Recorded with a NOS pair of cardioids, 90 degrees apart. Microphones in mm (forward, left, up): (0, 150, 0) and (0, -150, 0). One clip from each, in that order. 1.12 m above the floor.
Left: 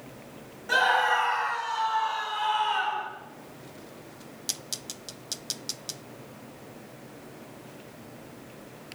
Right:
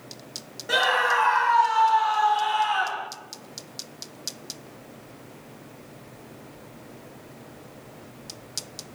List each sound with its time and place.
0.7 s a scream: 30° right, 8.5 m; by 3.1 s 40° right, 7.5 m